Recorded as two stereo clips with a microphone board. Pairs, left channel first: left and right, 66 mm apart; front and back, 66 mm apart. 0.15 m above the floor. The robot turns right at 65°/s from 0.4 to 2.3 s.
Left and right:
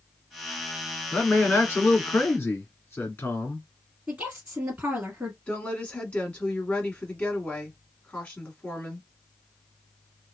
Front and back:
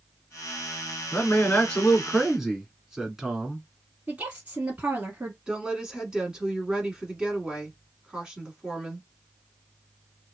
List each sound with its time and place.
1.1 s a man speaking: 25° left, 1.5 m; by 3.6 s 100° left, 1.5 m
4.1 s a woman speaking: 140° right, 1.2 m
5.5 s a woman speaking: 125° left, 1.2 m